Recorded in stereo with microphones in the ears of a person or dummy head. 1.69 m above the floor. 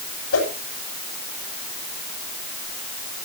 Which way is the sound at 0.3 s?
80° left.